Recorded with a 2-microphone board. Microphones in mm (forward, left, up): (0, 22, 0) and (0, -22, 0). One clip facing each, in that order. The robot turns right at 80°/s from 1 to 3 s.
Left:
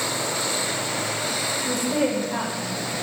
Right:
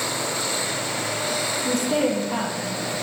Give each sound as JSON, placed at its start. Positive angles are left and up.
{"t": 1.6, "sound": "a woman speaking", "azimuth_deg": -140, "distance_m": 5.0}